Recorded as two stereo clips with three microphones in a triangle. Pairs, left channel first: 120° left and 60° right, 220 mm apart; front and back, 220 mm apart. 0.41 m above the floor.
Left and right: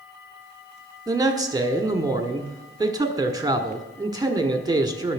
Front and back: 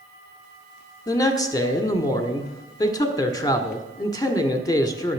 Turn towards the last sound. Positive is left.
turn(degrees=-30)